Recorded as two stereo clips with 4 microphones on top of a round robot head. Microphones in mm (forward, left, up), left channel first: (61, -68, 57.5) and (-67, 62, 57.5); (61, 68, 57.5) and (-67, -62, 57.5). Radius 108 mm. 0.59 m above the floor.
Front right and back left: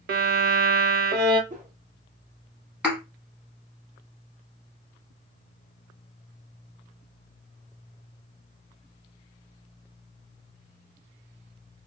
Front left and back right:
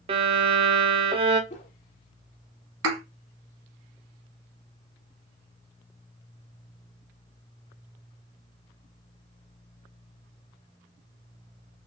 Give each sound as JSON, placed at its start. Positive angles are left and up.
{"t": 0.1, "sound": "a violin", "azimuth_deg": 165, "distance_m": 0.6}
{"t": 1.5, "sound": "a whoosh", "azimuth_deg": 90, "distance_m": 0.9}
{"t": 2.8, "sound": "a thud", "azimuth_deg": -140, "distance_m": 1.3}